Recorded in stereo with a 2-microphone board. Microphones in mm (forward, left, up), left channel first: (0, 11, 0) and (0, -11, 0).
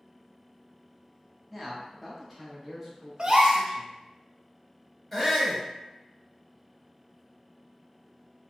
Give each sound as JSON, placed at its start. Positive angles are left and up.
{"t": 1.5, "sound": "a man speaking", "side_deg": -5, "distance_m": 1.2}
{"t": 3.2, "sound": "a gasp", "side_deg": -45, "distance_m": 0.5}
{"t": 5.1, "sound": "a shout", "side_deg": 15, "distance_m": 1.0}